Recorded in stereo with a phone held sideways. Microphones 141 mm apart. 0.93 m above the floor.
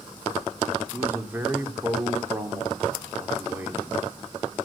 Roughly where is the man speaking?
Centre.